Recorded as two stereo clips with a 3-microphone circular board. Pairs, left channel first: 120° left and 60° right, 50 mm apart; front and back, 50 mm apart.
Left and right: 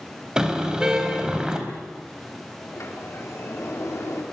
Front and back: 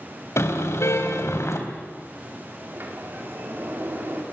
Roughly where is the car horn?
Ahead.